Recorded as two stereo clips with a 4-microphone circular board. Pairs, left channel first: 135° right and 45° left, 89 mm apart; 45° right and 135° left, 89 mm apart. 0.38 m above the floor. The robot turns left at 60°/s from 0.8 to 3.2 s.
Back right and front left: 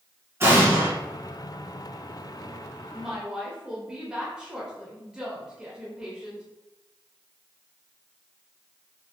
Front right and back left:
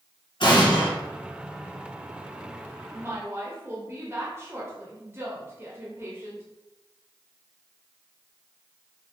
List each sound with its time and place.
0.4 s an explosion: 15° right, 1.3 m; by 0.9 s 25° right, 1.3 m
2.9 s a woman speaking: 130° left, 1.0 m; by 6.4 s 115° left, 1.0 m